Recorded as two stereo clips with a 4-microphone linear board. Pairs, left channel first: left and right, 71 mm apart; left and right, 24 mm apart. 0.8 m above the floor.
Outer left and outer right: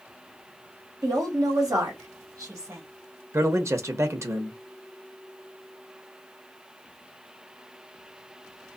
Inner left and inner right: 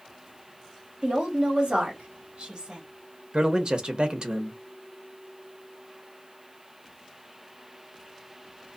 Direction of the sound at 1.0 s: 60° right (ahead or behind).